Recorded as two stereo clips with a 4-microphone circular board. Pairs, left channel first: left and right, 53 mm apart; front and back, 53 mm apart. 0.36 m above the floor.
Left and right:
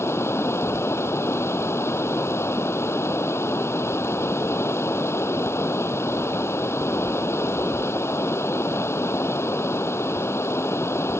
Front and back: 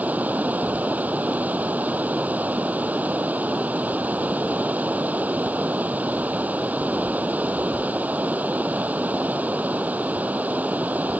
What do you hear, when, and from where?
0.0 s running water: 120° left